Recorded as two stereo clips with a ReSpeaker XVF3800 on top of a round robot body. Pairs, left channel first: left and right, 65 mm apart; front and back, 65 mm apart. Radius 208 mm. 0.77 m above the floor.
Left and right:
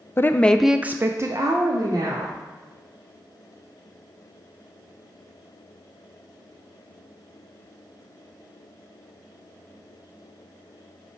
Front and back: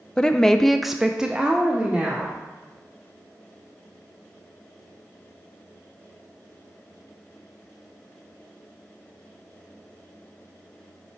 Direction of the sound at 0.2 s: 65° left.